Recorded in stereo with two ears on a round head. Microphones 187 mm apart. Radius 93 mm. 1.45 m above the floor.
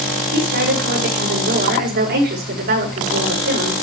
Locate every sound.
0.3 s a woman speaking: 45° right (ahead or behind), 6.5 m